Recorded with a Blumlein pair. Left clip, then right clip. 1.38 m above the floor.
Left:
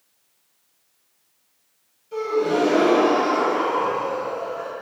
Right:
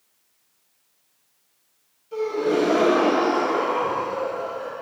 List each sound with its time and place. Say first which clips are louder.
2.1 s a gasp: left 1 dB; straight ahead, 2 m